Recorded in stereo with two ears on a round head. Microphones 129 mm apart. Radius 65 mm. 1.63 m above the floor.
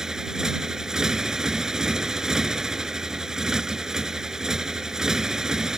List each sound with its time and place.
0.0 s a motorcycle: 5° right (ahead or behind)